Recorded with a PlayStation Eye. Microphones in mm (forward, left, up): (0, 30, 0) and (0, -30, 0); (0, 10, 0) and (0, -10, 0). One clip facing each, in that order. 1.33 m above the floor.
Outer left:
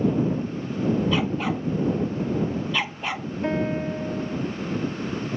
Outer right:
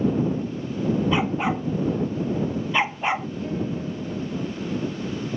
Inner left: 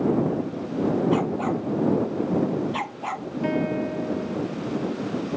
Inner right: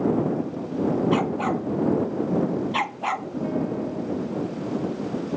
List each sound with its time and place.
1.1 s a dog barking: 20° right (ahead or behind); by 3.3 s 25° right (ahead or behind)
3.4 s a piano: 80° left